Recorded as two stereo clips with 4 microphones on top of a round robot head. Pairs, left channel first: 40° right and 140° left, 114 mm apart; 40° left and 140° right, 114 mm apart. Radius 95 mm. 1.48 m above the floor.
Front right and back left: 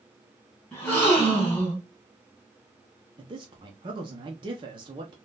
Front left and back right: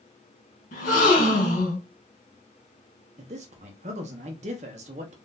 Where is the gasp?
35° left, 2 m.